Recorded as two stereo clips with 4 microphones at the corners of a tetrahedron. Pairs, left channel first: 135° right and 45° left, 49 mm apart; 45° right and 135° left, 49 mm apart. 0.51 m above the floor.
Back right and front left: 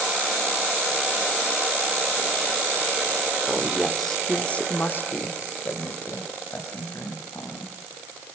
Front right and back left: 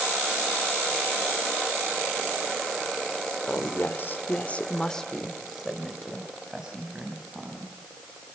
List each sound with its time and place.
3.5 s a woman speaking: 20° right, 1.9 m; by 7.8 s 155° right, 5 m